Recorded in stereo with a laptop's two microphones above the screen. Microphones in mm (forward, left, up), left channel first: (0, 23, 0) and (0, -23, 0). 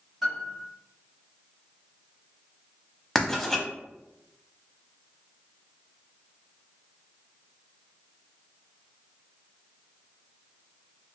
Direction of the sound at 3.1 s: 5° left (ahead or behind).